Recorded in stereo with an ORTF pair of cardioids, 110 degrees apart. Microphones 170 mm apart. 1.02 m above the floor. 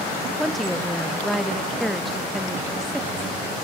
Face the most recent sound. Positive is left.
turn(degrees=0)